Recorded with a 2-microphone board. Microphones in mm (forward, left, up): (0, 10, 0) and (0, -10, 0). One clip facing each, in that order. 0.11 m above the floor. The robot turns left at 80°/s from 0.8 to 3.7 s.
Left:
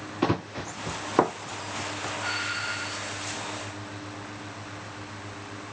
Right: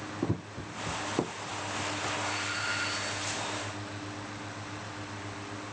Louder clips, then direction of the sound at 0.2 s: Left 9 dB; 70° left (ahead or behind).